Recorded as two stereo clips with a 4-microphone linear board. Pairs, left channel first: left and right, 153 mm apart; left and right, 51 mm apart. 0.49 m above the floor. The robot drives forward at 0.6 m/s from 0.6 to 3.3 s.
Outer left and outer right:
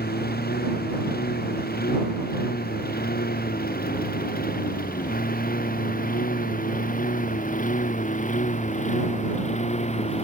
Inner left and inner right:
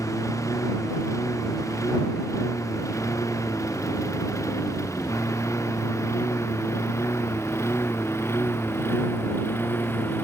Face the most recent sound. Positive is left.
turn(degrees=40)  # may be behind; listen again after turning